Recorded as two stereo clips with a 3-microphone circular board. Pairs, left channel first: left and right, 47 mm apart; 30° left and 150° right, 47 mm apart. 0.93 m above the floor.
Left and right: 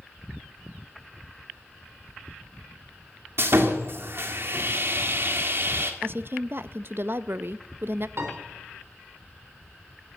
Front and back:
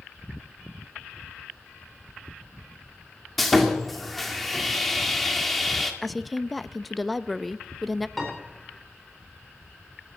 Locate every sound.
3.4 s sawing: 60° right, 2 m
6.0 s a woman speaking: 60° right, 0.5 m
8.2 s a piano: 55° right, 4 m